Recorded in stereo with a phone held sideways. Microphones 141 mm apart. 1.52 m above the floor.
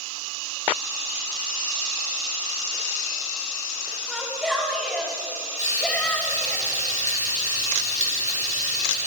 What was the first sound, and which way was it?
A shout, centre (ahead or behind).